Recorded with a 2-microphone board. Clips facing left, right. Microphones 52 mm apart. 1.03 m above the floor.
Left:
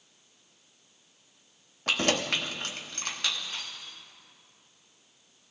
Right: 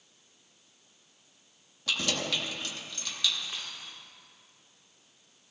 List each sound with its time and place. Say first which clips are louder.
1.9 s keys jangling: left 4 dB; 50° left (ahead or behind), 0.9 m
3.5 s a dropped coin: left 1 dB; 25° right (ahead or behind), 4.5 m